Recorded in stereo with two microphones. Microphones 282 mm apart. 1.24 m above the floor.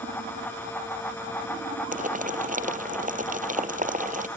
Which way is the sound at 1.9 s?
30° right (ahead or behind).